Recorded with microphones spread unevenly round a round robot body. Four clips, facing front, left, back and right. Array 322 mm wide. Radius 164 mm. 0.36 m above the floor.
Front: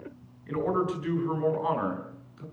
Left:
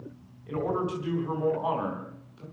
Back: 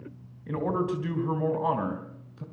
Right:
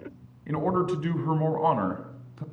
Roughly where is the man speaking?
Right.